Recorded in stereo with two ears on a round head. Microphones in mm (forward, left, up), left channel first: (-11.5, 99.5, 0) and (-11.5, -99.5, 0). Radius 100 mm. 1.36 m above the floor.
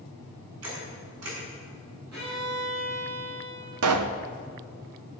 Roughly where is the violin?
Right.